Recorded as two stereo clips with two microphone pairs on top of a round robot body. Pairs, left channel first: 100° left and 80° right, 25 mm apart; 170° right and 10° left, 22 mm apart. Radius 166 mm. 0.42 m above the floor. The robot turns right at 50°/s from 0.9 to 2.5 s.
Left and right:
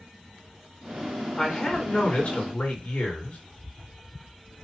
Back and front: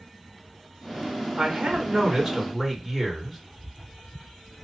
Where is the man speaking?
25° left, 2 m; by 3.4 s 80° left, 2 m.